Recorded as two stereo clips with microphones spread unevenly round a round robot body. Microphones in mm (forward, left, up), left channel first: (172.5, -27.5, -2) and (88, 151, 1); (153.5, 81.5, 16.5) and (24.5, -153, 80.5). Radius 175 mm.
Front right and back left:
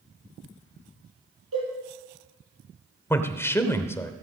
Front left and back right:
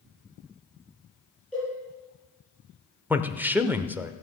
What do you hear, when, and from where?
1.5 s a cowbell: 150° left, 5.5 m
3.1 s a man speaking: 10° right, 0.8 m